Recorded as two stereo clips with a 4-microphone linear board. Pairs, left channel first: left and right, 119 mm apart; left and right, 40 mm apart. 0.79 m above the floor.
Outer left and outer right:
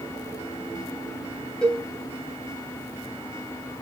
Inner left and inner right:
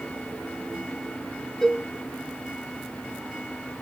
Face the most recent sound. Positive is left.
turn(degrees=10)  # may be behind; listen again after turning